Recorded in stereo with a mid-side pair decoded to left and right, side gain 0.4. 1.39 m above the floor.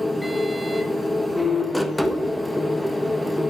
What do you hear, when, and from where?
0.0 s a machine running: straight ahead, 1.2 m